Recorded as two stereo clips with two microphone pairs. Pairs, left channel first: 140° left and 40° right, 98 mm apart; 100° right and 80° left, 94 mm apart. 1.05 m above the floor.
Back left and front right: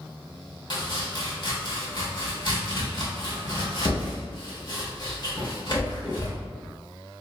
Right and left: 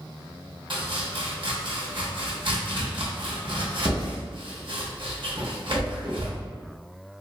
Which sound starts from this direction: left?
Chopping, at 0.7 s.